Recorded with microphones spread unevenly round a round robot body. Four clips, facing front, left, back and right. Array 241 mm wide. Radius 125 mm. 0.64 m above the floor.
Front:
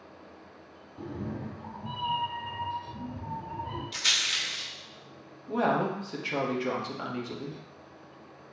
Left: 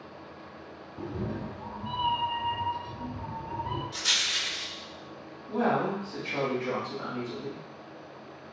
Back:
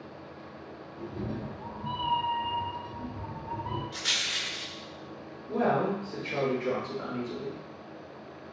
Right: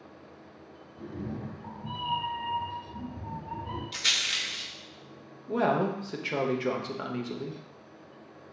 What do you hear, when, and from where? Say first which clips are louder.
1.0 s a cat meowing: left 3 dB, even; 70° left, 0.6 m; by 3.8 s 95° left, 3.5 m
3.9 s a rattle: left 1 dB, front 1 dB; 55° right, 1.4 m
5.5 s a woman speaking: right 1 dB, even; 80° right, 1.0 m